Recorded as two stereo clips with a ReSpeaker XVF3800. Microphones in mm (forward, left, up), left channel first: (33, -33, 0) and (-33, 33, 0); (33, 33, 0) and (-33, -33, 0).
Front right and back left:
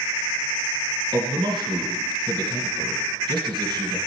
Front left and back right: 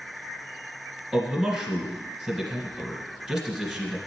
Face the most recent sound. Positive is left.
turn(degrees=145)